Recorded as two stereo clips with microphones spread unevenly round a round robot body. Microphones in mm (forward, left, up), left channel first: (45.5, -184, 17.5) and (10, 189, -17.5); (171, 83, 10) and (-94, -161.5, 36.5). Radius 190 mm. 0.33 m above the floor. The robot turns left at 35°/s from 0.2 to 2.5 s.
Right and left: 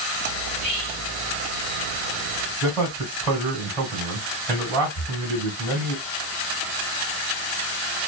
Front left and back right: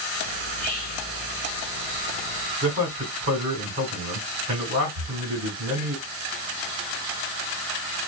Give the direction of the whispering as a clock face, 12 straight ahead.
11 o'clock.